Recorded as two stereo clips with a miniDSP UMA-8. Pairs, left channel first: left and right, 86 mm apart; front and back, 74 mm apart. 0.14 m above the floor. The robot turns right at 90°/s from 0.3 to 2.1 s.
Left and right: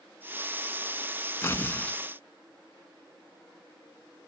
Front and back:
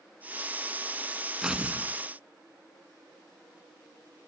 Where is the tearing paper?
105° left, 1.4 m; by 2.0 s 160° left, 1.4 m.